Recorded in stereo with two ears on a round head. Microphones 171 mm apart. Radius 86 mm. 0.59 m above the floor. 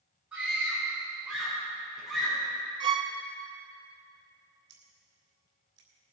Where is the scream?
5° right (ahead or behind), 6 m; by 2.4 s 5° left (ahead or behind), 7 m.